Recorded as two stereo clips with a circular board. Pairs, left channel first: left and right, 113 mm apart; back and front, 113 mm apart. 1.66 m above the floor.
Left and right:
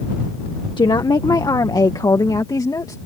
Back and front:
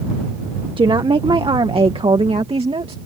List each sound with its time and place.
0.8 s a woman speaking: 40° left; by 3.0 s 30° left